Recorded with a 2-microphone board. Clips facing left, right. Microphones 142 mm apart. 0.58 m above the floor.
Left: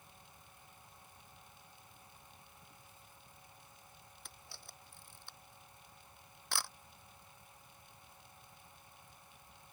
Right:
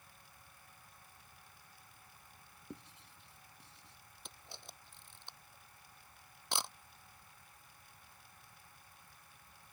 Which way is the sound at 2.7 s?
75° right (ahead or behind).